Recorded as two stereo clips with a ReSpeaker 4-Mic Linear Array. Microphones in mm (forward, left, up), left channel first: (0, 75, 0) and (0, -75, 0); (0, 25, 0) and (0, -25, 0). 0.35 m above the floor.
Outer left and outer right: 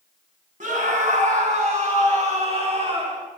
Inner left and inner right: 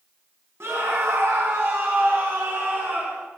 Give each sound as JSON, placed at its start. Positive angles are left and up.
{"t": 0.6, "sound": "a scream", "side_deg": -60, "distance_m": 2.0}